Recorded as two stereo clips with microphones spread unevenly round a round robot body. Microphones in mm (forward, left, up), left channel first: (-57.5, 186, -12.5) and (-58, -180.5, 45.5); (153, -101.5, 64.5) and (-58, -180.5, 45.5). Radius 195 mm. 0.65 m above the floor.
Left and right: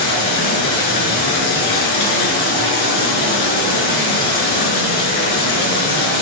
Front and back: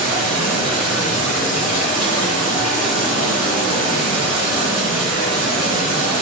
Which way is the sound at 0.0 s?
115° left.